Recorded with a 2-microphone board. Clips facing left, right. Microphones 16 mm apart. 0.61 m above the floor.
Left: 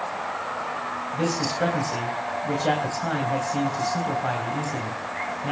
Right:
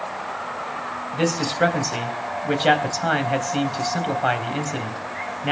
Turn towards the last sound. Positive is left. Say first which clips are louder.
# right 4 dB
turn(degrees=-50)  # may be behind; listen again after turning